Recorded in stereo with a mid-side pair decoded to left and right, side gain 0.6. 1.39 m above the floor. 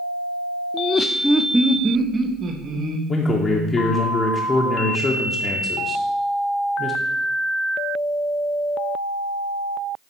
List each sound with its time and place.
0.7 s laughter: 50° left, 0.5 m; by 3.0 s 40° right, 1.5 m
3.1 s a man speaking: 25° left, 1.0 m